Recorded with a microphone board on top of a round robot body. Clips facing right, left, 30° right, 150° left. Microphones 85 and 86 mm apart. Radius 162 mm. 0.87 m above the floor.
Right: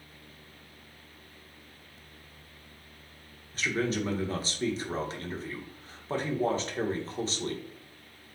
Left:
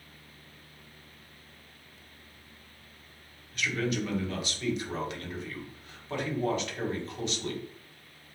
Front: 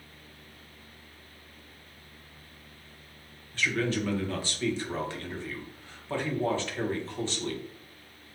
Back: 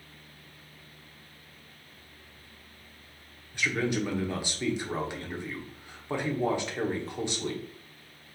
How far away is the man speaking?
About 1.4 m.